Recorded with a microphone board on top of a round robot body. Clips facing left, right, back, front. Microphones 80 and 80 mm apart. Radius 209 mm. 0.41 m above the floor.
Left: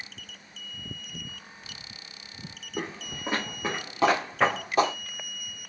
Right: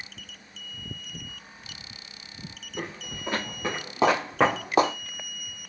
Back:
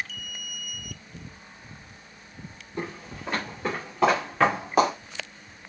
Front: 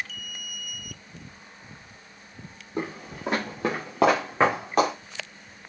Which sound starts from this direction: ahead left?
Footsteps, at 2.8 s.